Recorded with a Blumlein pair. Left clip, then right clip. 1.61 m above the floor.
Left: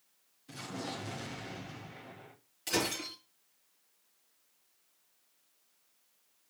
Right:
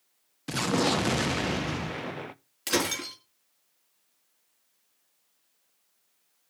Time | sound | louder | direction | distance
0.5 | an explosion | right 15 dB | 45° right | 0.6 m
2.7 | breaking glass | right 5 dB | 65° right | 4.5 m